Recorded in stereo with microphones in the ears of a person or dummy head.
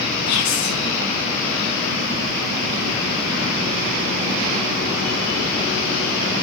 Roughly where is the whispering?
Left.